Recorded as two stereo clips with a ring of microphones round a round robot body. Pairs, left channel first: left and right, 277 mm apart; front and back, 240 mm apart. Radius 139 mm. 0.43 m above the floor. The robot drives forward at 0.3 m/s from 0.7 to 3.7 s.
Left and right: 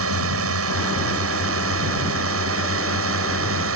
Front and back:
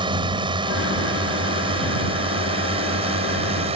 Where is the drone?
110° right; by 3.8 s 115° right.